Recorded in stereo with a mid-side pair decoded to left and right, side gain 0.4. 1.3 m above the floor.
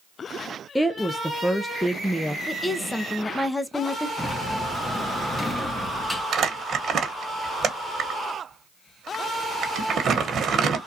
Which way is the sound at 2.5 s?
15° left.